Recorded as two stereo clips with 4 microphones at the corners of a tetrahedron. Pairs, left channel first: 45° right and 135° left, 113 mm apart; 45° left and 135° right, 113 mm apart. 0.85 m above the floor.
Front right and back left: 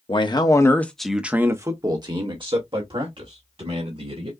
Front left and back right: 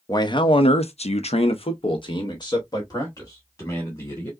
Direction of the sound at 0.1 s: 10° right.